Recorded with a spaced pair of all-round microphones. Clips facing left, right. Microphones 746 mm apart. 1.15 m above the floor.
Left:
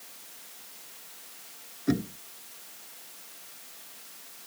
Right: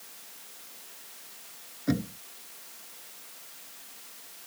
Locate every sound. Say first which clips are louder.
1.9 s knocking: left 1 dB; 10° right (ahead or behind)